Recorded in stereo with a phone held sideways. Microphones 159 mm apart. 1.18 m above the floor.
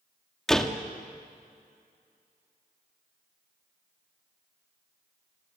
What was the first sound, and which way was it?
A door slam, 5° left (ahead or behind).